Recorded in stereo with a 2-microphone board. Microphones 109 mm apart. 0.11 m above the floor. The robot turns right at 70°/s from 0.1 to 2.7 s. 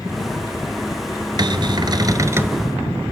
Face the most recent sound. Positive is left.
turn(degrees=-15)